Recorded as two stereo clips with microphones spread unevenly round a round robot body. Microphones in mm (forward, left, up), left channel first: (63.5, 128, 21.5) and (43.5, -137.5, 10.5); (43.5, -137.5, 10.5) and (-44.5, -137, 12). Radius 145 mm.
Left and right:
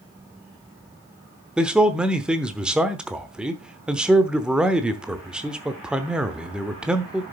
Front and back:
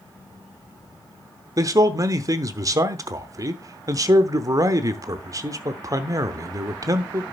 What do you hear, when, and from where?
1.6 s a man speaking: 175° right, 0.9 m